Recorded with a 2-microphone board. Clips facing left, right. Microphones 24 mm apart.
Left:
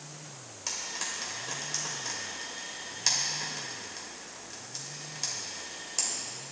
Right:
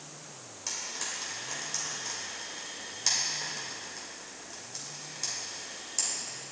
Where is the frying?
10° left (ahead or behind), 2.5 m.